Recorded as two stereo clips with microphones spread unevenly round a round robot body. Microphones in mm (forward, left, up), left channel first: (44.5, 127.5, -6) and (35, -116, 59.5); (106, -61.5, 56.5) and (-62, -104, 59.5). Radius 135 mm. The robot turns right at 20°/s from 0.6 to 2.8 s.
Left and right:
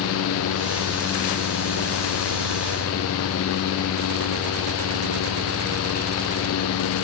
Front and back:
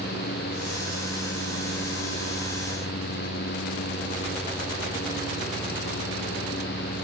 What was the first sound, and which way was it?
Only background noise.